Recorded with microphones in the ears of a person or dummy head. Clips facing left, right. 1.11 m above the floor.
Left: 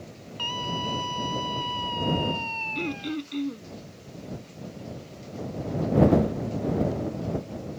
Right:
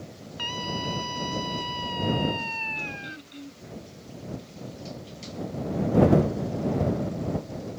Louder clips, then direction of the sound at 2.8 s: Left 10 dB; 75° left (ahead or behind).